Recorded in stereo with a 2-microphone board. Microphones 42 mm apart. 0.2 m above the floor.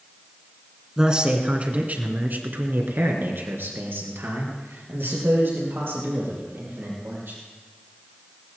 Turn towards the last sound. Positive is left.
turn(degrees=-65)  # may be behind; listen again after turning